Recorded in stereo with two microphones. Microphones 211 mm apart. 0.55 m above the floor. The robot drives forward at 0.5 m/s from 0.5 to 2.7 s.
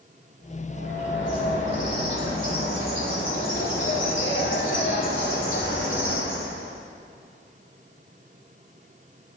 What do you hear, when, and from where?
0.7 s a bird: 60° left (ahead or behind), 2 m; by 6.8 s 70° left (ahead or behind), 2.0 m